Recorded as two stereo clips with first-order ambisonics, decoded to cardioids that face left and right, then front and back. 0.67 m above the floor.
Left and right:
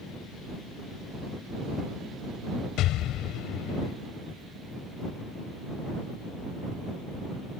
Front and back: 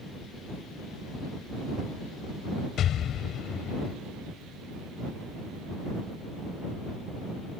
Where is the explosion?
50° left.